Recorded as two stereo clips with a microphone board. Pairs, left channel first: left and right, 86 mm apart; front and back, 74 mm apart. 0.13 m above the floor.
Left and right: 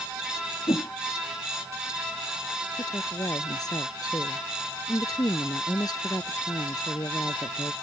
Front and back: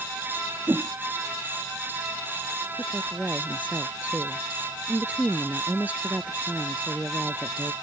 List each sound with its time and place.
0.7 s a whoosh: 125° left
2.8 s a woman speaking: 115° left